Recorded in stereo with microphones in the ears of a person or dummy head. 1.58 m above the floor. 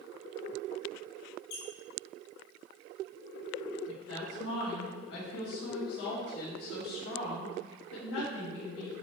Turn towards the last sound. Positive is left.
turn(degrees=75)  # may be behind; listen again after turning